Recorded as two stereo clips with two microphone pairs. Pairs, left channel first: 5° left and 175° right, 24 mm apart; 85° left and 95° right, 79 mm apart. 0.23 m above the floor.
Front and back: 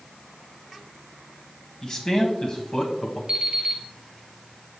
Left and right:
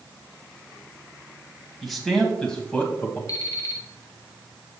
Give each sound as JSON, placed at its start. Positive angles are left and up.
{"t": 1.8, "sound": "a man speaking", "azimuth_deg": -5, "distance_m": 1.7}
{"t": 3.3, "sound": "an alarm clock", "azimuth_deg": 130, "distance_m": 1.7}